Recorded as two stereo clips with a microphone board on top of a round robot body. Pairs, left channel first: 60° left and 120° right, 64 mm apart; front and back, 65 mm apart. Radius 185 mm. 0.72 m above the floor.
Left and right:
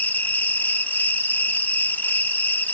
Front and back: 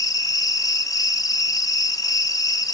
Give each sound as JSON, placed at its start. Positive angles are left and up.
{"t": 0.0, "sound": "an insect", "azimuth_deg": 0, "distance_m": 1.1}